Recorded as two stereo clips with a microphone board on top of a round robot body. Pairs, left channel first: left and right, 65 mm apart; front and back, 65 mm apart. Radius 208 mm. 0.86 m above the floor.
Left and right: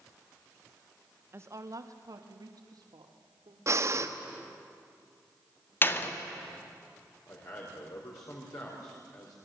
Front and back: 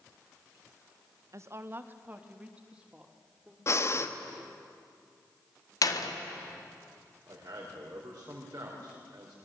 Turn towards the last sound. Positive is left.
turn(degrees=125)